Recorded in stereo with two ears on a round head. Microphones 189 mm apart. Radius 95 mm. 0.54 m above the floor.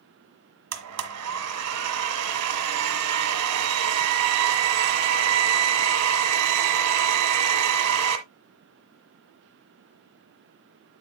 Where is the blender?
80° right, 1.5 m.